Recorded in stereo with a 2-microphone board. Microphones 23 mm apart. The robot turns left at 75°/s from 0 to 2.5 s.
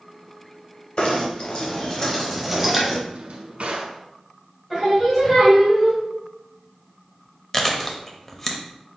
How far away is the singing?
About 1.5 m.